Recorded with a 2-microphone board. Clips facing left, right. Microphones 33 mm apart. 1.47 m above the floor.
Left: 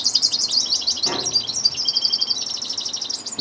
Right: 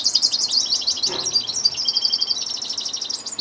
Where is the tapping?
70° left (ahead or behind), 2.5 m.